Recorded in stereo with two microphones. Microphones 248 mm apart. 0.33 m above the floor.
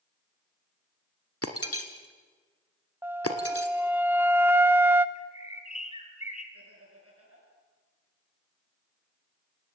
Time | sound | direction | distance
1.4 | breaking glass | 70° left (ahead or behind) | 1.5 m
3.0 | a flute | 10° right (ahead or behind) | 0.6 m
5.2 | a bird | 25° left (ahead or behind) | 2 m
6.5 | laughter | 70° right (ahead or behind) | 7 m